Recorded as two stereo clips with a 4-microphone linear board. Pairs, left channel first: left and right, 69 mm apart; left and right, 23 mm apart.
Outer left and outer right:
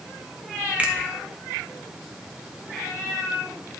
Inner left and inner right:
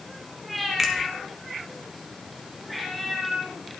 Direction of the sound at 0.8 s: 20° right (ahead or behind).